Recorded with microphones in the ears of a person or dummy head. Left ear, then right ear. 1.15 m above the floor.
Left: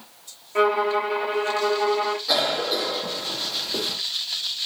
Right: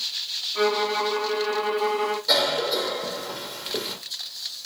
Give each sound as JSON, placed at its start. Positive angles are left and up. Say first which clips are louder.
{"t": 0.6, "sound": "a violin", "louder": "left 4 dB", "side_deg": 50, "distance_m": 0.8}
{"t": 2.3, "sound": "a cough", "louder": "right 2 dB", "side_deg": -5, "distance_m": 1.4}